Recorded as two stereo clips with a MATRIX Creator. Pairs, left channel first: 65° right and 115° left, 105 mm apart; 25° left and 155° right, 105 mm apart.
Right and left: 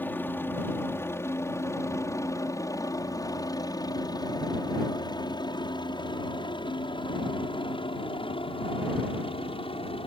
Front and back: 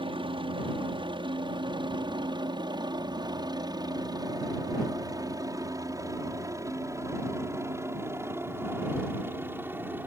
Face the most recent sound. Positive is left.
turn(degrees=-90)